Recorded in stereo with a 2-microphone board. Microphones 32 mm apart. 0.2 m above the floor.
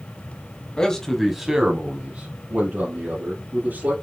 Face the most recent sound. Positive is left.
turn(degrees=-60)  # may be behind; listen again after turning